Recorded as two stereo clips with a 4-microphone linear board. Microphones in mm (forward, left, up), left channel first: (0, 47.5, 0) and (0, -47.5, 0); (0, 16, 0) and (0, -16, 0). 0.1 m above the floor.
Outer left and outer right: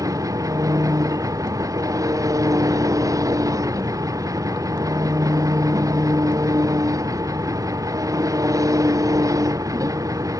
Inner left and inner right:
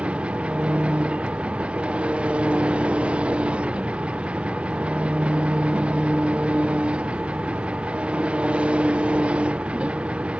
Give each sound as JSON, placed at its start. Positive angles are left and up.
{"t": 0.0, "sound": "an engine running", "side_deg": -35}